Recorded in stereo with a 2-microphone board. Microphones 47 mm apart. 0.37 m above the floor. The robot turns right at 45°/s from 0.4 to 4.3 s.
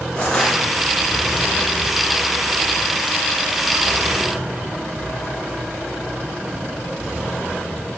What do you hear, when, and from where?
0.1 s crushing: 30° left (ahead or behind), 3 m; by 0.6 s 35° left (ahead or behind), 3 m